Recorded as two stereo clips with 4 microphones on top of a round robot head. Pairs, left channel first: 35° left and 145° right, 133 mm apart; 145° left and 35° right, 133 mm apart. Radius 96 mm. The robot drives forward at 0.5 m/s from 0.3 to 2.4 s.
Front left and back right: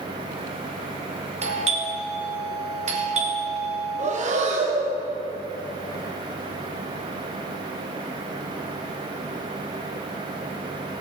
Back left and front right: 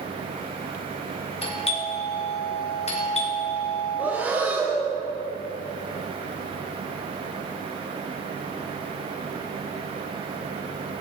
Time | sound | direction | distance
1.4 | a doorbell | 175° right | 2.5 m
4.0 | breathing | 110° right | 2.5 m